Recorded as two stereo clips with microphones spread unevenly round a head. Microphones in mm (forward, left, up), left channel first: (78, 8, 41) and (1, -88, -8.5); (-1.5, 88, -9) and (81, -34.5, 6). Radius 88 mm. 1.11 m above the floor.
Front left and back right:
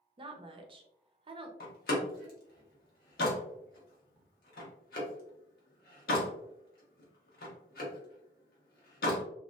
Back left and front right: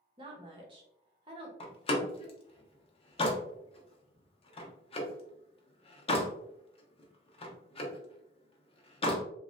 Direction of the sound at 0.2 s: 120° right.